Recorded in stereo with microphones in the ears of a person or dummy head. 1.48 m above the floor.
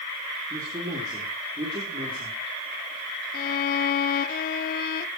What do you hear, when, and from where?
0.5 s a man speaking: 20° right (ahead or behind), 4.5 m; by 2.4 s 30° right (ahead or behind), 5 m
3.3 s a violin: 50° left (ahead or behind), 0.6 m